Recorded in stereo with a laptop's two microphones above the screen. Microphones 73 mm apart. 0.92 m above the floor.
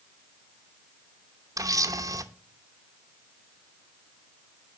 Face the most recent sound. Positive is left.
turn(degrees=-50)  # may be behind; listen again after turning